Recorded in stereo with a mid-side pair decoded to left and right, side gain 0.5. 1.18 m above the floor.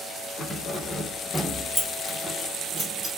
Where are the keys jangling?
30° left, 1.3 m; by 3.1 s 45° right, 1.6 m.